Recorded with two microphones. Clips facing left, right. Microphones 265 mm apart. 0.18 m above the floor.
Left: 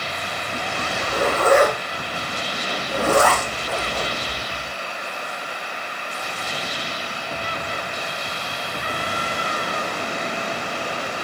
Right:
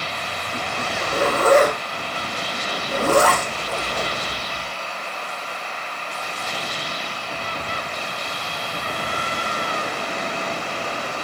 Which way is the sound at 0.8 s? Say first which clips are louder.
Right 1 dB; 10° left (ahead or behind).